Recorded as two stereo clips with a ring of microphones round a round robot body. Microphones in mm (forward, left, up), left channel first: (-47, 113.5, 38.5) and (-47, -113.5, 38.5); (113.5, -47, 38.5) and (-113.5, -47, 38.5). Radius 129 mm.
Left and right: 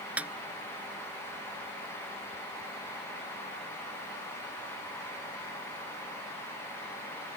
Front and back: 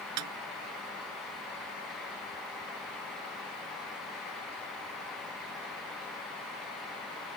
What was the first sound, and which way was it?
A snare drum, 175° right.